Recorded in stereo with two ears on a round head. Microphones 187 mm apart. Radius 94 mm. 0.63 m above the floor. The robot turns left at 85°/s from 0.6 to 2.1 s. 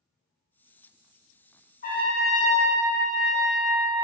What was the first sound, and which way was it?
A trumpet, 35° left (ahead or behind).